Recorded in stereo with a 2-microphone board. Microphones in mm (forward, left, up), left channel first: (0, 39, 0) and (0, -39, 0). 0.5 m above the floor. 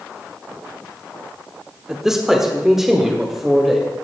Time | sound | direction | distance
1.9 | a man speaking | 10° right (ahead or behind) | 1.1 m